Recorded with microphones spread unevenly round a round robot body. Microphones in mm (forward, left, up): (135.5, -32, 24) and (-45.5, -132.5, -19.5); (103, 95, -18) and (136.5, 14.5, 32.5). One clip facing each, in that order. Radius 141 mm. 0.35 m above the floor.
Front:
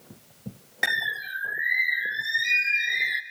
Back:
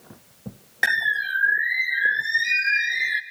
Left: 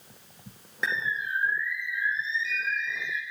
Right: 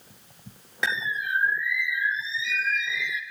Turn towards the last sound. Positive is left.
turn(degrees=-65)